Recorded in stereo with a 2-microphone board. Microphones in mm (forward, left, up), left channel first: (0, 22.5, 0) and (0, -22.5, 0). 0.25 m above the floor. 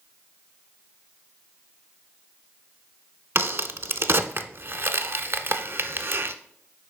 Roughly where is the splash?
I don't hear a splash.